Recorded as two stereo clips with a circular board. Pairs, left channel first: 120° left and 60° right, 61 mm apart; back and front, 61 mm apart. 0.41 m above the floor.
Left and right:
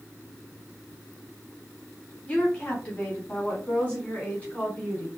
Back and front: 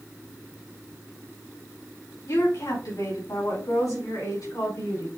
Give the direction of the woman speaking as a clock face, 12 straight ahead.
6 o'clock.